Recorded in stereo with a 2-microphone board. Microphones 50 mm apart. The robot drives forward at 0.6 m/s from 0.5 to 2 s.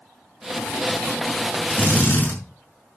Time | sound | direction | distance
1.7 | a drill | 30° left (ahead or behind) | 6 m